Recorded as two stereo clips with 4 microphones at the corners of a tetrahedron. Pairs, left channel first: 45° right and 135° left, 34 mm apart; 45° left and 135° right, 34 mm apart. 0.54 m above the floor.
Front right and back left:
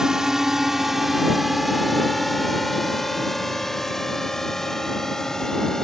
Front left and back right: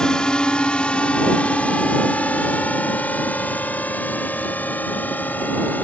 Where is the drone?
80° left; by 5.8 s 25° left.